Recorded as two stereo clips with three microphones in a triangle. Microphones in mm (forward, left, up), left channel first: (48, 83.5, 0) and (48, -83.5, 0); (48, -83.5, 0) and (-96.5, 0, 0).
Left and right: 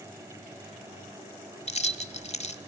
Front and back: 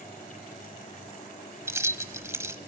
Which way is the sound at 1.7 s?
85° left.